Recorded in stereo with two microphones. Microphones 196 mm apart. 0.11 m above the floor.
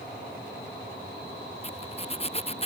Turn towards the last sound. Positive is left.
turn(degrees=30)  # may be behind; listen again after turning